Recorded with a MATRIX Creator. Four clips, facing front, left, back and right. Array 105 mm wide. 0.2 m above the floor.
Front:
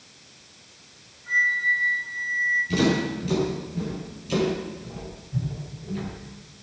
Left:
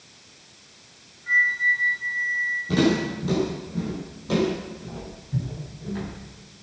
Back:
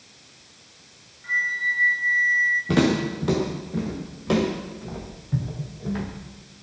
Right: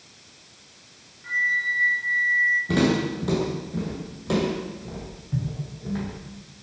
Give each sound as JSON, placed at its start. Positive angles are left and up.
{"t": 1.2, "sound": "a flute", "azimuth_deg": -150, "distance_m": 9.0}
{"t": 2.7, "sound": "footsteps", "azimuth_deg": -165, "distance_m": 7.0}